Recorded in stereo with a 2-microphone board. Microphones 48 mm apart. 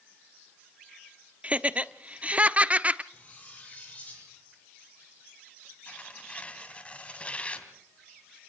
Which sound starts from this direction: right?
Laughter, at 1.4 s.